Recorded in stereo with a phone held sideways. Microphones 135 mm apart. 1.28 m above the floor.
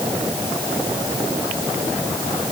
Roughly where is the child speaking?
I don't hear a child speaking.